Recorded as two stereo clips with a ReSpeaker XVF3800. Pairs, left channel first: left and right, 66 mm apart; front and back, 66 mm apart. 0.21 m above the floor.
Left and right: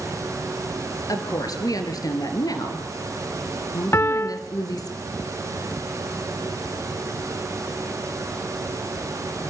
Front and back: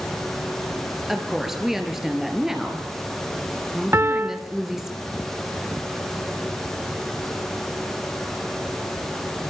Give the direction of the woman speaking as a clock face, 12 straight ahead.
9 o'clock.